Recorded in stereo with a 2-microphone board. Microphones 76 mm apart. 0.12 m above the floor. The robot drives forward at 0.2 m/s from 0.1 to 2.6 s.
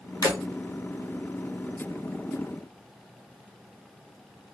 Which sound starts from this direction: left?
Breaking glass, at 0.2 s.